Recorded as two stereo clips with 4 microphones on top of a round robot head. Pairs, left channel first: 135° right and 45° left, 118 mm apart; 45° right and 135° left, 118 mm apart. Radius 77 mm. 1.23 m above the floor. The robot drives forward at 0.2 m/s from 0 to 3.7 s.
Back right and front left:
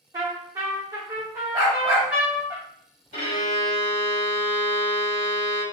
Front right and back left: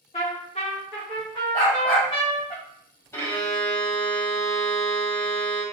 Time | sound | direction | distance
0.1 | a trumpet | 10° right | 1.1 m
1.5 | a dog barking | 15° right | 1.1 m
3.1 | a violin | 110° right | 1.5 m